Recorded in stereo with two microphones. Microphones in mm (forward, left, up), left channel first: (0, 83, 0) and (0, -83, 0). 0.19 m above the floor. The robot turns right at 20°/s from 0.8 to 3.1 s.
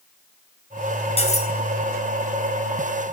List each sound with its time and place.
1.2 s cutlery clinking: 40° left (ahead or behind), 2.5 m; by 1.5 s 45° left (ahead or behind), 2.5 m